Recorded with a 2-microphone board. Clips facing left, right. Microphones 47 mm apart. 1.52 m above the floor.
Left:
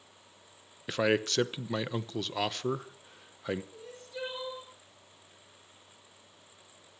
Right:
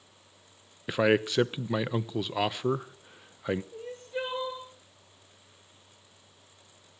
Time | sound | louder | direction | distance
0.9 | a man speaking | right 3 dB | 15° right (ahead or behind) | 0.9 m
3.7 | crying | right 7 dB | 40° right (ahead or behind) | 5 m